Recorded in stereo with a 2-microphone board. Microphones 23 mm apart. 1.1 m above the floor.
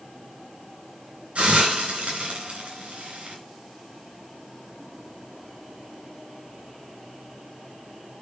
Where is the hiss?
65° right (ahead or behind), 3.5 m.